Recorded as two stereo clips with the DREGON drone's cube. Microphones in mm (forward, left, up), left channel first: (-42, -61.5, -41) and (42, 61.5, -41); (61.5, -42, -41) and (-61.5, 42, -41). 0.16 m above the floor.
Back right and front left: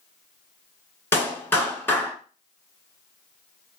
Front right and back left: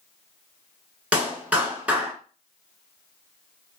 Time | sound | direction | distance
1.1 | a clap | 155° right | 1.3 m